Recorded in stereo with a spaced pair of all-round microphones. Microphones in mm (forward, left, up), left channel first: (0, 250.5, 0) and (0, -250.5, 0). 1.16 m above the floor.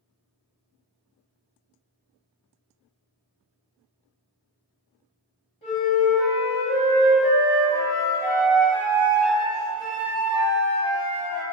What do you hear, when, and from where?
5.6 s a flute: 10° left (ahead or behind), 1.6 m